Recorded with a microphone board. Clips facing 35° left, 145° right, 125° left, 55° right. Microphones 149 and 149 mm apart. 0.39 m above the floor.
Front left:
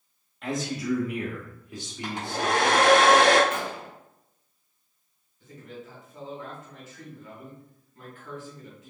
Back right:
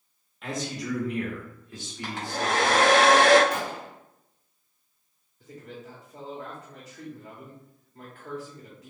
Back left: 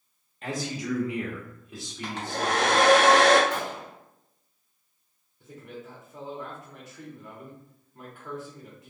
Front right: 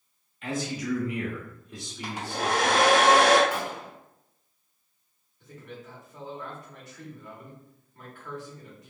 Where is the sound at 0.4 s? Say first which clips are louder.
Front left 3 dB, front right 1 dB; 125° left, 1.2 m; by 2.9 s 15° right, 1.2 m.